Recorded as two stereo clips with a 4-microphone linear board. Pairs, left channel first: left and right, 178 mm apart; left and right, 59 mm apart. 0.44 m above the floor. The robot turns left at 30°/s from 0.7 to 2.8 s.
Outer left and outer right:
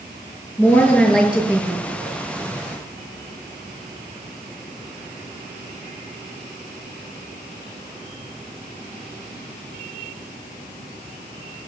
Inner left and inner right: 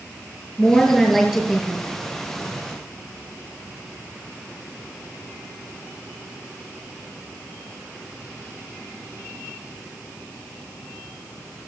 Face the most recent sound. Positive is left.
turn(degrees=-55)